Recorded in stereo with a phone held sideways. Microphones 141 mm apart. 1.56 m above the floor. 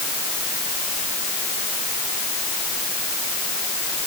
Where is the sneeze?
I don't hear a sneeze.